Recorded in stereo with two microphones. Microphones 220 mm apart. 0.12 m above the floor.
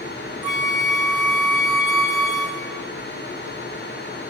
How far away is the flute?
About 0.5 m.